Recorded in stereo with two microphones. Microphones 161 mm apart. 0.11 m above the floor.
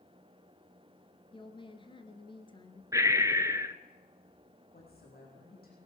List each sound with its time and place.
1.3 s a woman speaking: 30° left (ahead or behind), 1.6 m
2.9 s breathing: 20° right (ahead or behind), 0.8 m
4.7 s a woman speaking: 70° left (ahead or behind), 5 m